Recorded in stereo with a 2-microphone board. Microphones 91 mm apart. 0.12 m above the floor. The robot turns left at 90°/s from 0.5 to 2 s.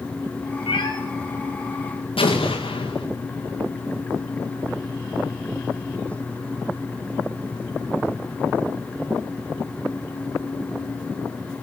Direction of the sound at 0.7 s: 75° left (ahead or behind).